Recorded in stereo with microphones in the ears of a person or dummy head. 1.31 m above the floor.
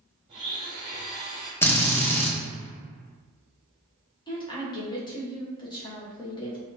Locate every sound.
0.3 s a blender: 25° right (ahead or behind), 0.8 m
1.6 s a drill: 10° left (ahead or behind), 0.8 m
4.3 s a woman speaking: 25° left (ahead or behind), 1.2 m